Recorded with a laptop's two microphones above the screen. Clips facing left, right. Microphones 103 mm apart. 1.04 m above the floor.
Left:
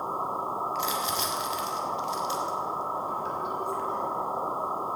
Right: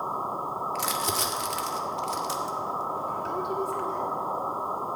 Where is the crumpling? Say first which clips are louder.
Even; 70° right (ahead or behind), 1.8 m.